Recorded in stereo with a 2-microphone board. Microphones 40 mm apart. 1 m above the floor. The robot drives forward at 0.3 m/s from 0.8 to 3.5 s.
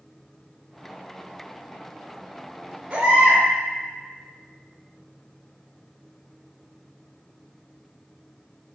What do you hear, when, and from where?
2.9 s a baby crying: 30° right (ahead or behind), 1.2 m